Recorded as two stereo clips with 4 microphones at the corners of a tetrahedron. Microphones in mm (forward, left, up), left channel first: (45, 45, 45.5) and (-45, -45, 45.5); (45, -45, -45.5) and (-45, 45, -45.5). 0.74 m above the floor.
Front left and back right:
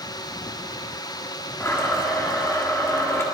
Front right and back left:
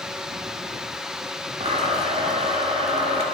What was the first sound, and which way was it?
A blender, 115° left.